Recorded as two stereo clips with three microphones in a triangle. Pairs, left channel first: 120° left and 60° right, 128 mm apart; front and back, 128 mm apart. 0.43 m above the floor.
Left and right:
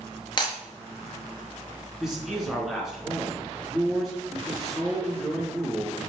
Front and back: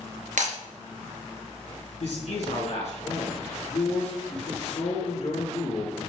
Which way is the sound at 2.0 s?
25° left.